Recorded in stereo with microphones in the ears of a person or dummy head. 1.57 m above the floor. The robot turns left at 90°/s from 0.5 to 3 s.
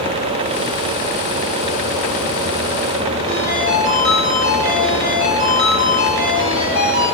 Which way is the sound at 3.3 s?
60° right (ahead or behind).